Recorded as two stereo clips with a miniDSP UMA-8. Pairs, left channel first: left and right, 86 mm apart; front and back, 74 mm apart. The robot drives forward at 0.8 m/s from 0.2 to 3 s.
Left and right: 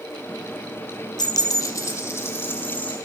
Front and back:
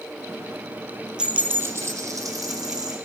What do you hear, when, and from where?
1.2 s a dropped coin: 105° left, 0.7 m; by 3.0 s 160° left, 1.7 m